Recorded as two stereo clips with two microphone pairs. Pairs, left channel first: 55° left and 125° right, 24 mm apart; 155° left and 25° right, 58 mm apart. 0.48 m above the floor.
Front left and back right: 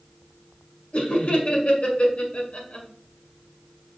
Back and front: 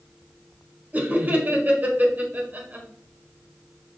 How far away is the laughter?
About 1.6 m.